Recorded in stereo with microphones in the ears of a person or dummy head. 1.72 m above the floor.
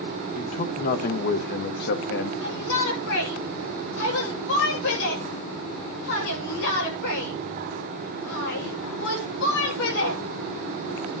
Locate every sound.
0.3 s a man speaking: 40° left (ahead or behind), 1.8 m; by 2.3 s 65° left (ahead or behind), 1.2 m
2.4 s a shout: 75° left (ahead or behind), 9.5 m